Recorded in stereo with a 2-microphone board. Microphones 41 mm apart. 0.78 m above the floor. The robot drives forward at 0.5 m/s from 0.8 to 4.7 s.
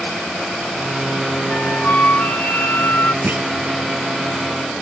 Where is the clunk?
55° right (ahead or behind).